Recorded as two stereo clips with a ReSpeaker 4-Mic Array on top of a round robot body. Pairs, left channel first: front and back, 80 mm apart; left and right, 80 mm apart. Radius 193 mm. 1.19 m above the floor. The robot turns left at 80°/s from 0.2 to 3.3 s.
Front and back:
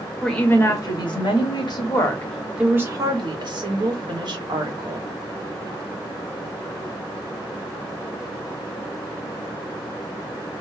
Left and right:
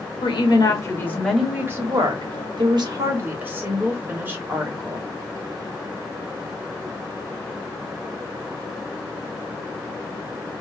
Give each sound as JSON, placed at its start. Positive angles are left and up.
{"t": 0.2, "sound": "a woman speaking", "azimuth_deg": 90, "distance_m": 1.1}